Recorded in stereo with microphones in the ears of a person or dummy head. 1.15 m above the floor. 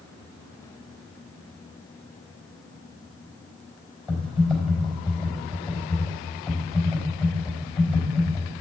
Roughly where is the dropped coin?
No dropped coin in this recording.